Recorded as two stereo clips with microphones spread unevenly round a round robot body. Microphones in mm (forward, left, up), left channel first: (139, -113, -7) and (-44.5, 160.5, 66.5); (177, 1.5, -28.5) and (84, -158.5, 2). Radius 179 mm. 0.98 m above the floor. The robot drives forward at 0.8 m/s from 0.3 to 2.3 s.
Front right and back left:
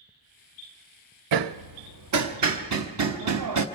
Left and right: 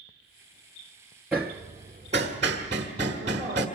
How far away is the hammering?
About 0.6 m.